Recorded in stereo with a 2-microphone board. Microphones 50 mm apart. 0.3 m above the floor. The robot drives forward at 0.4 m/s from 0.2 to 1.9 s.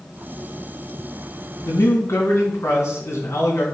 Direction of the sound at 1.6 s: 65° left (ahead or behind).